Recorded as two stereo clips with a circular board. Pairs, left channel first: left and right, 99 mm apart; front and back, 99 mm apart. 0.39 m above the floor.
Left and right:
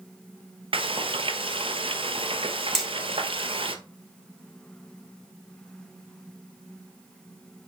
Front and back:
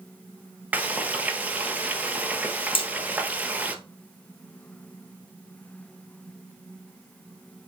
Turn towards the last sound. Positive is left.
turn(degrees=0)